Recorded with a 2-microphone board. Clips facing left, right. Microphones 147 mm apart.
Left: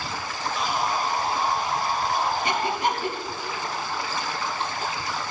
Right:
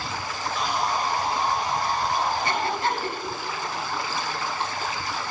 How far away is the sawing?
About 1.0 m.